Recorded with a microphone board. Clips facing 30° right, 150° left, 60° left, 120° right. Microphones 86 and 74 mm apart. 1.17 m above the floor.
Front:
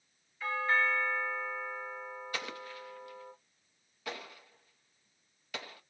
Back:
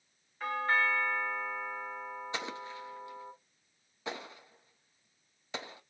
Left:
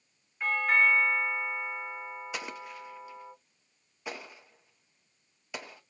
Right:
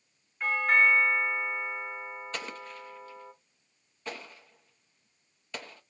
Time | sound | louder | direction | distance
0.4 | a doorbell | even, right 1 dB | 155° left | 1.6 m
2.3 | an explosion | back 1 dB, even | 125° left | 0.7 m